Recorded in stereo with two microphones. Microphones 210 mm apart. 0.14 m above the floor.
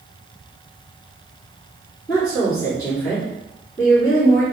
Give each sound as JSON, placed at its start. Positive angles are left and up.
{"t": 2.1, "sound": "a woman speaking", "side_deg": 15, "distance_m": 2.0}